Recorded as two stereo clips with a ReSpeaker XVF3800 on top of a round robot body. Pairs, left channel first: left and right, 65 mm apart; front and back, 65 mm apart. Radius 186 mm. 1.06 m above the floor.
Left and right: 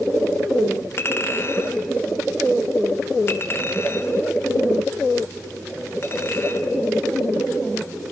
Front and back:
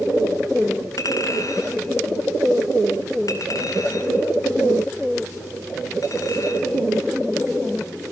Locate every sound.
1.0 s a clink: 35° left, 2.5 m